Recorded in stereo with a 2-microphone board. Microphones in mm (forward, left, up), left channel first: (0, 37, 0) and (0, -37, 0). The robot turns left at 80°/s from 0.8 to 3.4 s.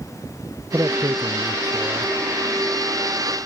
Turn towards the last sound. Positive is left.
turn(degrees=105)